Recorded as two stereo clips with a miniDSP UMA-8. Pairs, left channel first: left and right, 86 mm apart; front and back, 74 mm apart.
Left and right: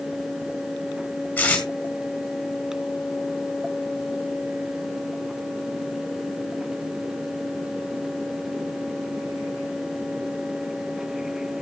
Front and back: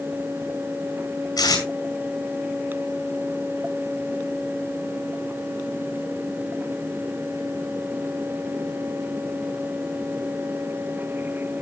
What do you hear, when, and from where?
1.4 s tape being pulled: 20° left, 4.5 m